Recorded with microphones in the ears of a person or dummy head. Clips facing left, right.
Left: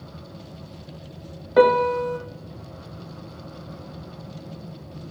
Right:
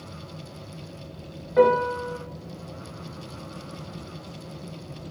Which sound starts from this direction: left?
A piano, at 1.6 s.